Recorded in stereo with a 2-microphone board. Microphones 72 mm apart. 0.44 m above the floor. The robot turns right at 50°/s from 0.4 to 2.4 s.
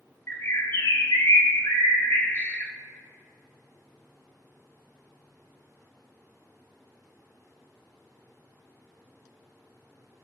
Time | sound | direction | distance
0.3 | a bird | 45° left | 0.6 m